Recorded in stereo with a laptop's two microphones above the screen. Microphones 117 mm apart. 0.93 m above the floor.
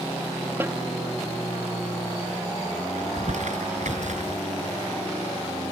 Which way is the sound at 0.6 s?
15° right (ahead or behind).